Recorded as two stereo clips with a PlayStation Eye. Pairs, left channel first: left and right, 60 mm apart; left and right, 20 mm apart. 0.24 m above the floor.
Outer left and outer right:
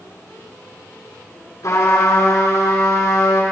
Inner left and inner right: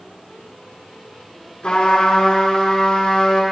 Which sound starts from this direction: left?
A trumpet, at 1.6 s.